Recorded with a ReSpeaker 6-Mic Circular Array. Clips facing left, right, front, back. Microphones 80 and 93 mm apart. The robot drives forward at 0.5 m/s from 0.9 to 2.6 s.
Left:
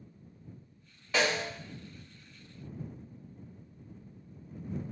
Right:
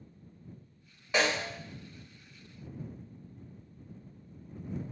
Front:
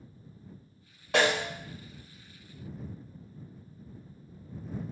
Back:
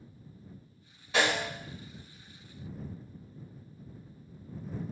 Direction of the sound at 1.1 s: 10° right.